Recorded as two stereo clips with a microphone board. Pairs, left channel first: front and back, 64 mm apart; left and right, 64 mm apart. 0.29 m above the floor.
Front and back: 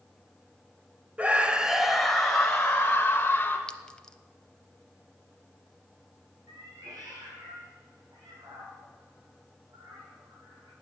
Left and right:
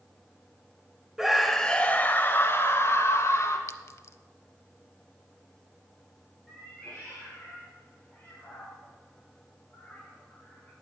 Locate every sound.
1.2 s a scream: 160° right, 1.0 m; by 3.6 s 60° left, 1.9 m
3.7 s a clink: 75° left, 0.7 m
6.5 s a cat meowing: 170° left, 5.5 m